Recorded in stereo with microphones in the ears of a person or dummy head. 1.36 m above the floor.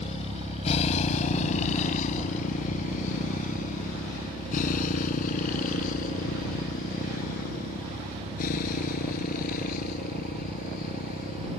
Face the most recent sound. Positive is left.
turn(degrees=45)  # may be behind; listen again after turning